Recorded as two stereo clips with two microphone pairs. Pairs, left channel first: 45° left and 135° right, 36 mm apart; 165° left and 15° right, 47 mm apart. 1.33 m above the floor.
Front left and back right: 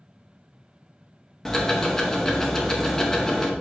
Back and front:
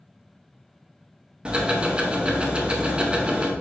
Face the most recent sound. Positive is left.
turn(degrees=-5)